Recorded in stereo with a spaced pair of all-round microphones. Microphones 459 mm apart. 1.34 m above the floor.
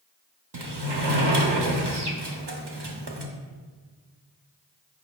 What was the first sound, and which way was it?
A sliding door, 65° right (ahead or behind).